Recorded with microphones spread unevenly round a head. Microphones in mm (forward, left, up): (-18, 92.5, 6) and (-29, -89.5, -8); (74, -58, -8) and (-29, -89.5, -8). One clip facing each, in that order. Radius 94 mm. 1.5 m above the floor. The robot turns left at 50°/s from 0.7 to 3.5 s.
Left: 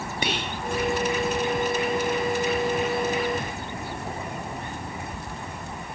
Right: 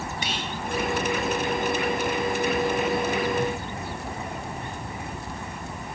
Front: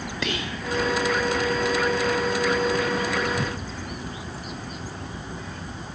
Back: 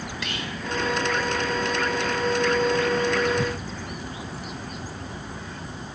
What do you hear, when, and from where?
0.2 s whispering: 40° left, 0.8 m